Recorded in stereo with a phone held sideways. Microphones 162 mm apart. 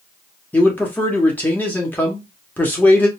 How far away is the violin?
I don't hear a violin.